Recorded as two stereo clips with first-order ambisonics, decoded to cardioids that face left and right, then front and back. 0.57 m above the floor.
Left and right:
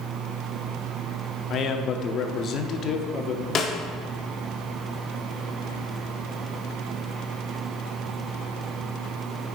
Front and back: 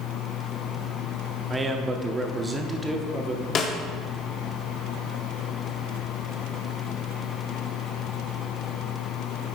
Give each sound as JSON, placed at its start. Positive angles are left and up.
{"t": 1.5, "sound": "a man speaking", "azimuth_deg": 110, "distance_m": 0.7}
{"t": 3.5, "sound": "a snare drum", "azimuth_deg": 40, "distance_m": 0.8}